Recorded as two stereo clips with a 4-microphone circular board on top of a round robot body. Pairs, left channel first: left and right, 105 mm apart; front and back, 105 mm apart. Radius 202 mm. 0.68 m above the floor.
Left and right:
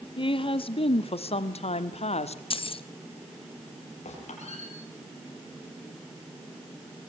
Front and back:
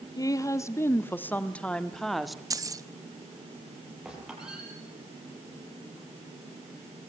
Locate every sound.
0.2 s a woman speaking: 55° left, 2 m; by 2.4 s 90° left, 2.0 m
2.5 s keys jangling: 125° left, 1.2 m
4.0 s a squeak: 95° left, 8 m